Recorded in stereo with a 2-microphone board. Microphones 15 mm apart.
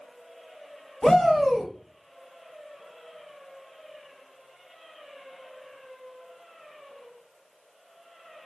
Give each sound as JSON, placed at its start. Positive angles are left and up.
{"t": 1.0, "sound": "a shout", "side_deg": 50, "distance_m": 1.4}